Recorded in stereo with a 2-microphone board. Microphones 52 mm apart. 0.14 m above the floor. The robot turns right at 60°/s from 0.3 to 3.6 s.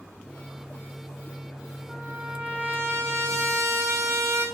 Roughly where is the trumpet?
Behind.